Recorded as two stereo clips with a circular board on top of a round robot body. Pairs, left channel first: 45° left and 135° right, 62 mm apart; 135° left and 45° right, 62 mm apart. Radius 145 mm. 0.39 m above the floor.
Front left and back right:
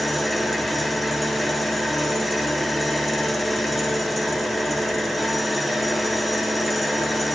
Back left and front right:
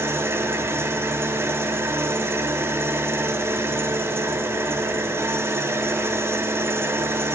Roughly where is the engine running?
Ahead right.